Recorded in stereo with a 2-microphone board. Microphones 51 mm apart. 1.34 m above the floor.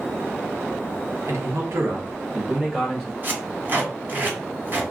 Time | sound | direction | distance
1.2 | a man speaking | 80° right | 1.2 m
3.2 | tape being pulled | 40° right (ahead or behind) | 1.4 m